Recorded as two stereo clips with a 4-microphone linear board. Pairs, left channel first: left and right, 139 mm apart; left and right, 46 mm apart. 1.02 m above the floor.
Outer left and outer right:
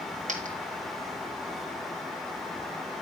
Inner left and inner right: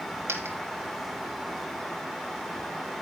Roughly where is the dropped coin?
Right.